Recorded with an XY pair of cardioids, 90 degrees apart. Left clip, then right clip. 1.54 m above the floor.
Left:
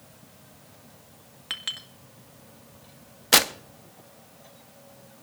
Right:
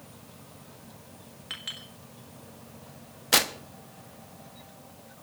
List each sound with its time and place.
1.5 s a clink: 50° left, 1.9 m
3.3 s tearing paper: 35° left, 0.8 m